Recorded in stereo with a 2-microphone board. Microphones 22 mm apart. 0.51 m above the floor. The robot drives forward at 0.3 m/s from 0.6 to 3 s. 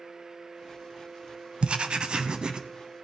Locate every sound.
1.6 s writing: 50° right (ahead or behind), 0.6 m; by 2.6 s 35° right (ahead or behind), 0.8 m